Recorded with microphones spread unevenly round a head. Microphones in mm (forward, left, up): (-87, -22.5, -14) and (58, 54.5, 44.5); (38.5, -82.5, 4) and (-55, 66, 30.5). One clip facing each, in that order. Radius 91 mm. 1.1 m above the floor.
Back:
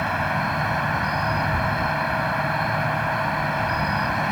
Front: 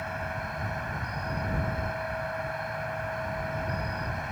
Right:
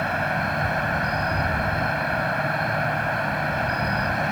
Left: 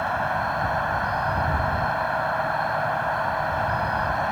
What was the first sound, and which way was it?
An insect, 120° right.